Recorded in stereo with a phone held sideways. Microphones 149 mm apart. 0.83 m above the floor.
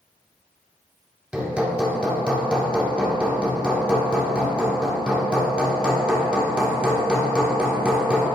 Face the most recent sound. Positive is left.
turn(degrees=-5)  # may be behind; listen again after turning